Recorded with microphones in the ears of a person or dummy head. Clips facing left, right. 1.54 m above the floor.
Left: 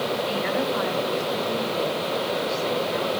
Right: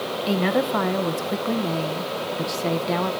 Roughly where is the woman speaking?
Right.